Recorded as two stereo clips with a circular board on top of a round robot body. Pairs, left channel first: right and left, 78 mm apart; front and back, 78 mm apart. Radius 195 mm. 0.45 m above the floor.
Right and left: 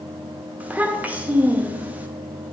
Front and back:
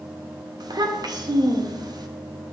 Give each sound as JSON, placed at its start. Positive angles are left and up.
{"t": 0.6, "sound": "a child speaking", "azimuth_deg": 160, "distance_m": 1.1}